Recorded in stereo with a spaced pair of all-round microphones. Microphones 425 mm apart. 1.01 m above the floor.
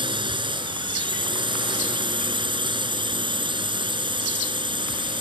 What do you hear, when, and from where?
0.0 s a drone: 10° right (ahead or behind)